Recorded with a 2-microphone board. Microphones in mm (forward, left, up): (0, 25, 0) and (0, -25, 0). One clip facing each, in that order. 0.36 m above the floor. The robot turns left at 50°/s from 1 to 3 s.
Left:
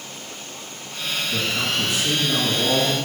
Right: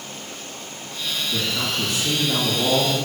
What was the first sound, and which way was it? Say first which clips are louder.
A man speaking: left 2 dB; 30° left.